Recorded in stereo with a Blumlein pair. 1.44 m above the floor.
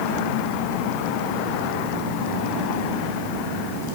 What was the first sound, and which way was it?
Only background noise.